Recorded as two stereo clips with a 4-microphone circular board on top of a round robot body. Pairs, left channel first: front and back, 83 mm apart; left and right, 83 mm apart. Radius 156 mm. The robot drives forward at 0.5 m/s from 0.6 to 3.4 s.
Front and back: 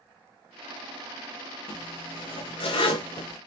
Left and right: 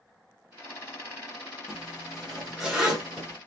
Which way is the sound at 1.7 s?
5° right.